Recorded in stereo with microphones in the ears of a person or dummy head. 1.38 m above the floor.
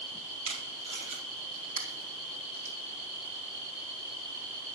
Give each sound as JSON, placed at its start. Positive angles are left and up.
{"t": 0.5, "sound": "tape being pulled", "side_deg": -40, "distance_m": 3.0}